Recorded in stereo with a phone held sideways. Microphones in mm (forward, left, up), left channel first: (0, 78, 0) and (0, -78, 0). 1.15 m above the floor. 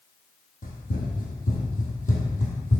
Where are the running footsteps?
60° left (ahead or behind), 2.5 m; by 2.8 s 50° left (ahead or behind), 2 m.